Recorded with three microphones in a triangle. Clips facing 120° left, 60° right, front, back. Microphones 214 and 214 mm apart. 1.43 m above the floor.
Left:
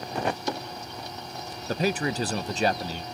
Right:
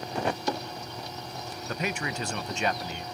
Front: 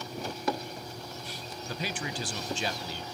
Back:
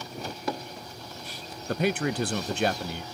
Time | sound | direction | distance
1.7 | a man speaking | 170° left | 0.7 m